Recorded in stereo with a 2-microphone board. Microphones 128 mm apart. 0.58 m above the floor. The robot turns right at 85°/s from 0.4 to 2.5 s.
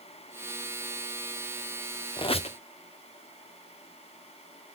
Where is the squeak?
40° left (ahead or behind), 0.6 m; by 2.6 s 55° left (ahead or behind), 0.6 m.